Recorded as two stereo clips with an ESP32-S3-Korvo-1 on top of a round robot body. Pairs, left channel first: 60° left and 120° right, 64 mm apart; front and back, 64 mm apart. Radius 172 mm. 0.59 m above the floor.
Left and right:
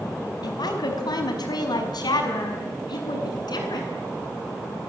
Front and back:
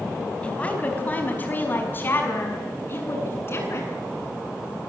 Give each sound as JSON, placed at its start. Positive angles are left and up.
{"t": 0.4, "sound": "a woman speaking", "azimuth_deg": 70, "distance_m": 4.5}